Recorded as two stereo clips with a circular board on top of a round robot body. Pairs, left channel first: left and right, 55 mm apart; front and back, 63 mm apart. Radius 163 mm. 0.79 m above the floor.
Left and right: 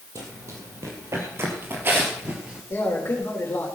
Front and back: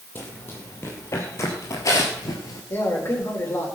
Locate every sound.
0.1 s running footsteps: 60° right, 2.0 m; by 2.6 s 20° right, 1.2 m
2.7 s a man speaking: 45° left, 4 m